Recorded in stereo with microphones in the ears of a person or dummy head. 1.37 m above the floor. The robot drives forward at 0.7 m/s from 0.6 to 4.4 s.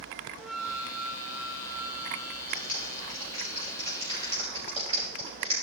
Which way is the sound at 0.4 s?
5° left (ahead or behind).